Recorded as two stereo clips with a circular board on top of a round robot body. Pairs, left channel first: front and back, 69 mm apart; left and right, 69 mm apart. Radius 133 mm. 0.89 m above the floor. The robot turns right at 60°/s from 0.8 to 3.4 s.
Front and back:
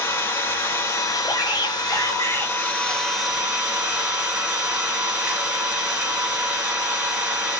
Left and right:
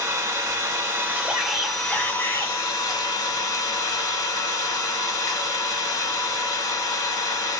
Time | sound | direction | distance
0.0 | an engine running | 45° right | 1.5 m
1.2 | a shout | 20° right | 1.7 m